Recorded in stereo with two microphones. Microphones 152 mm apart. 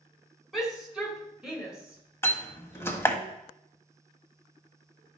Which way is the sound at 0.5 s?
Centre (ahead or behind).